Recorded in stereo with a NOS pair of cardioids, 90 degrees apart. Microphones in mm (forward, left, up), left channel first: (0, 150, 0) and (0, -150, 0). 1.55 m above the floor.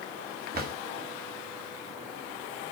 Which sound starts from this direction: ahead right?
A drawer, at 0.5 s.